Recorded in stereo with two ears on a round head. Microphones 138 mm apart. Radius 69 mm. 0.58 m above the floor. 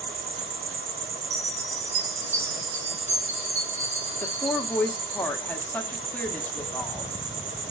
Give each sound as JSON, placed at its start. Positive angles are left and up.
{"t": 0.0, "sound": "an insect", "side_deg": -75, "distance_m": 1.8}
{"t": 1.3, "sound": "a chime", "side_deg": -50, "distance_m": 3.5}
{"t": 4.2, "sound": "a woman speaking", "side_deg": 10, "distance_m": 1.3}